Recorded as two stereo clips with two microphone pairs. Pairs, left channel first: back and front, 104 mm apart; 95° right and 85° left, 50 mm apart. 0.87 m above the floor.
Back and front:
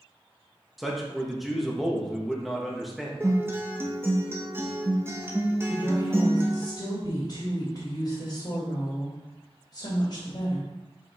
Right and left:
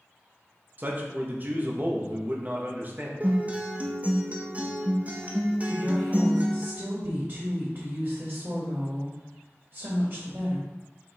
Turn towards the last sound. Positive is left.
turn(degrees=130)